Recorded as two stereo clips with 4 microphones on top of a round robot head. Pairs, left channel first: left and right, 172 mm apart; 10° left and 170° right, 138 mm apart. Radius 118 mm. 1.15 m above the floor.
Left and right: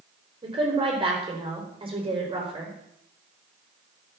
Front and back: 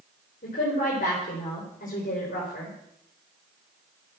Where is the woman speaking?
25° right, 4.5 m.